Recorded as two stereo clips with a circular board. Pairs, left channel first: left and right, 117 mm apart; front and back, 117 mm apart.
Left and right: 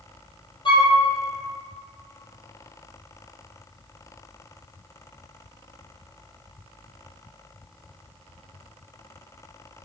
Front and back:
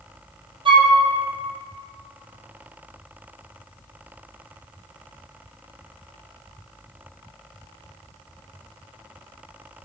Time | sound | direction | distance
0.7 | a flute | 135° left | 3.5 m